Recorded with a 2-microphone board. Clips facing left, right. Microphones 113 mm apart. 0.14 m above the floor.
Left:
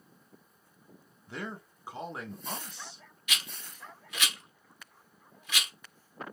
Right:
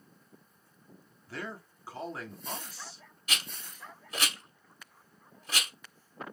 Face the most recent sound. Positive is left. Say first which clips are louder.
# right 1 dB
turn(degrees=-40)  # may be behind; listen again after turning